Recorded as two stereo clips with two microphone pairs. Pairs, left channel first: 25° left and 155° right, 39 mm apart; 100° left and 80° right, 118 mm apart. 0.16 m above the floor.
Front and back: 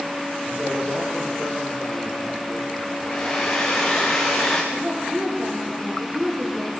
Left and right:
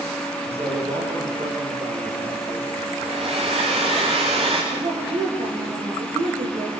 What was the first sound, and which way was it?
A man speaking, 105° right.